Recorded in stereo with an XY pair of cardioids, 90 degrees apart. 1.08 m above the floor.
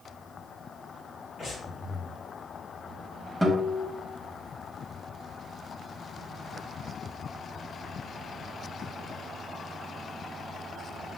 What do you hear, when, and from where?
1.4 s breathing: 55° left, 2.5 m
3.4 s a guitar: straight ahead, 1.6 m